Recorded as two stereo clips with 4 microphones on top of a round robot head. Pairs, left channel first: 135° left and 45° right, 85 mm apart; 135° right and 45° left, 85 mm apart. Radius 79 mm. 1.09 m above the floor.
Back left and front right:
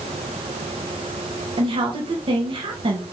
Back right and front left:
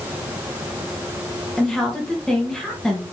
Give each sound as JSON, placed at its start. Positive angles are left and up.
{"t": 1.6, "sound": "a woman speaking", "azimuth_deg": -55, "distance_m": 1.5}